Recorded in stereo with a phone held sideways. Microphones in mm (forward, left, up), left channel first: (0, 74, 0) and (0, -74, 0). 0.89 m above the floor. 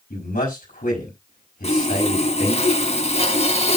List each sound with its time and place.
0.1 s a man speaking: 85° left, 4.5 m
1.6 s sawing: 50° left (ahead or behind), 1.6 m